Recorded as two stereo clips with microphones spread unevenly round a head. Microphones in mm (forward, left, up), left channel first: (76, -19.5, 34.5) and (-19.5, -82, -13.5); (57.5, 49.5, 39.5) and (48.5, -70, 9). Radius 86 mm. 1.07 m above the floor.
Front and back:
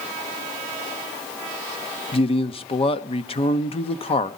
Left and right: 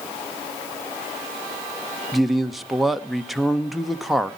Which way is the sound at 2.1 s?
5° right.